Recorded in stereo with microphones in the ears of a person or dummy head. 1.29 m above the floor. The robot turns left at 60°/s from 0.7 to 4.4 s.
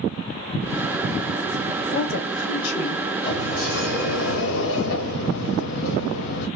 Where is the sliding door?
155° left, 0.8 m; by 6.5 s 85° left, 0.8 m.